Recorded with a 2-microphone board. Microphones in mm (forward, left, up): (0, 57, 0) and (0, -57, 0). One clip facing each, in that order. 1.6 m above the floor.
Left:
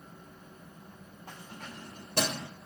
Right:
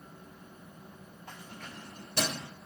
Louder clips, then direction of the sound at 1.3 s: Left 1 dB; 45° left (ahead or behind).